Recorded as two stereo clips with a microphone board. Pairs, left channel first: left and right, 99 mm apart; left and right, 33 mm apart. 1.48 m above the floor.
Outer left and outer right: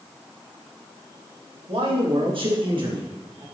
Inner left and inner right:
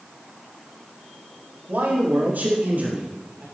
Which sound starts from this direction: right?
A man speaking, at 1.7 s.